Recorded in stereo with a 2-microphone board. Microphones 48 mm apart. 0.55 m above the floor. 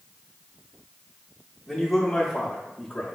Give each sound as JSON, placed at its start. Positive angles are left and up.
{"t": 1.7, "sound": "a man speaking", "side_deg": -5, "distance_m": 1.0}